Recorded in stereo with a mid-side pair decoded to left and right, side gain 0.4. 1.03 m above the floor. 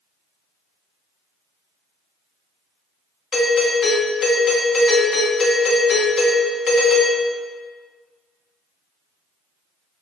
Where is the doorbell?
50° left, 1.8 m.